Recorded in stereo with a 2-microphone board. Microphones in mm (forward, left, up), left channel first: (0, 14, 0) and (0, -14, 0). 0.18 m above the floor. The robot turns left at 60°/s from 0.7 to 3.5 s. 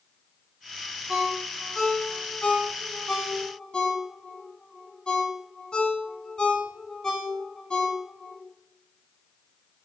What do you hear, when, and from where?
1.1 s a ringtone: 10° right (ahead or behind), 0.6 m; by 8.4 s 30° left (ahead or behind), 0.6 m